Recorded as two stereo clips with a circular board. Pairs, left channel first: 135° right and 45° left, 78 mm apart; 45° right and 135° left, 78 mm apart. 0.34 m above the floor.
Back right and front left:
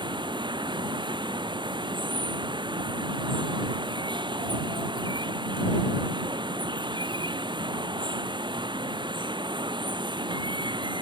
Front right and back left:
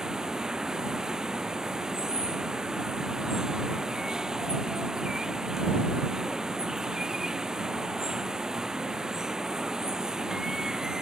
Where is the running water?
55° left.